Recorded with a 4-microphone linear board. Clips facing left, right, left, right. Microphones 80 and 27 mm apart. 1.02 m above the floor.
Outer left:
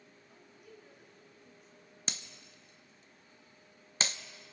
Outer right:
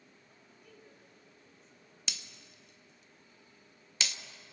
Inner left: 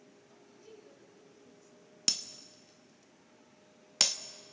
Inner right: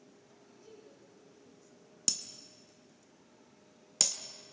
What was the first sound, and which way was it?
A woman speaking, 10° left (ahead or behind).